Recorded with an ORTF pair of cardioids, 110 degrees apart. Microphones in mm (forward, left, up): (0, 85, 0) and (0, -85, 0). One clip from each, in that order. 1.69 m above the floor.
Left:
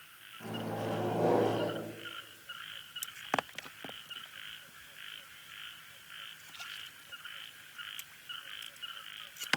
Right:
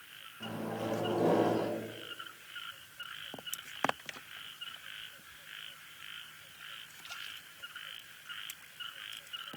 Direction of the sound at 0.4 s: Straight ahead.